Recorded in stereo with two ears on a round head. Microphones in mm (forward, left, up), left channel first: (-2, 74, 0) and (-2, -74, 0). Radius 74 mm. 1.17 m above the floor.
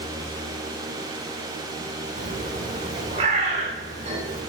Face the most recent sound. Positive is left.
turn(degrees=-40)  # may be behind; listen again after turning